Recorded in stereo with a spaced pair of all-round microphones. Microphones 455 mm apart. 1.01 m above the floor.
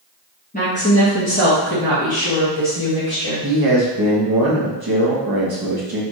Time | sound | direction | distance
0.5 | a woman speaking | 15° left (ahead or behind) | 1.3 m
3.4 | a man speaking | 50° right (ahead or behind) | 1.0 m